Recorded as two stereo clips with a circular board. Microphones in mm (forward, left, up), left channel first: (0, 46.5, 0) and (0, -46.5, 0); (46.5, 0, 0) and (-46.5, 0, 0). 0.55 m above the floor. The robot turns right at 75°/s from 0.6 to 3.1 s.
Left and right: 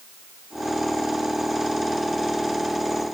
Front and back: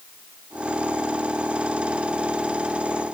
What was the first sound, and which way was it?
Only background noise.